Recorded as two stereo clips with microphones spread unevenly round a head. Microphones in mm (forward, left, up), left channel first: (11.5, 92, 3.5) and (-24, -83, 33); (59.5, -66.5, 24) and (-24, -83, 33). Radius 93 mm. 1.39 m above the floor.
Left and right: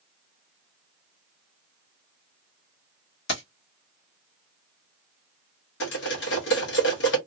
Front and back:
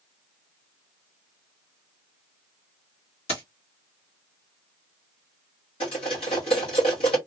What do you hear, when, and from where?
3.3 s keys jangling: 45° left, 1.3 m
5.8 s cutlery clinking: 50° left, 1.0 m